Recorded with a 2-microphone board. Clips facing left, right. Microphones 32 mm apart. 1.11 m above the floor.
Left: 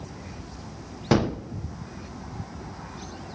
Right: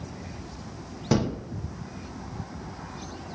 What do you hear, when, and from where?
1.1 s a gunshot: 25° left (ahead or behind), 0.6 m